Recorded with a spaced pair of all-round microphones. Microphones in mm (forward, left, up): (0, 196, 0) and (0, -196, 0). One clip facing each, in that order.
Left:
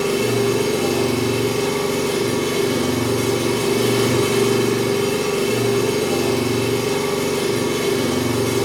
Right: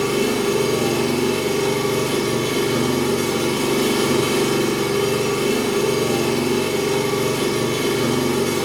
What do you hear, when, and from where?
0.0 s an engine running: 50° right (ahead or behind), 1.5 m